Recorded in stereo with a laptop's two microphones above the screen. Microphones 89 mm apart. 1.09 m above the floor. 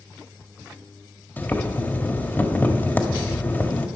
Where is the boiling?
25° left (ahead or behind), 1.6 m.